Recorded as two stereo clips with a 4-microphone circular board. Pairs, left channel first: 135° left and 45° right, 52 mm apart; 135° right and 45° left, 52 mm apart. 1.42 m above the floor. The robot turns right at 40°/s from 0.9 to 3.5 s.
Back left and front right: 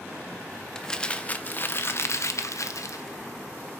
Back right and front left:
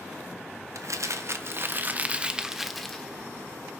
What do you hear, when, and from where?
0.8 s crumpling: 60° left, 1.2 m; by 3.0 s 145° left, 1.2 m